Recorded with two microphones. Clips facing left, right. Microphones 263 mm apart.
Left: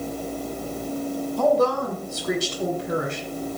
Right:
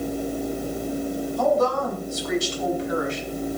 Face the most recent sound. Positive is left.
turn(degrees=55)  # may be behind; listen again after turning